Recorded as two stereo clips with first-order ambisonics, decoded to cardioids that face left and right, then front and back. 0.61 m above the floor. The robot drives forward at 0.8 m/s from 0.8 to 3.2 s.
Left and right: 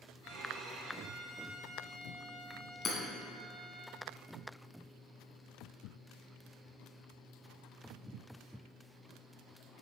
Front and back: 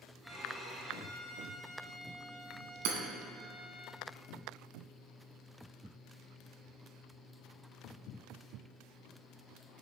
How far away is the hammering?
About 1.7 m.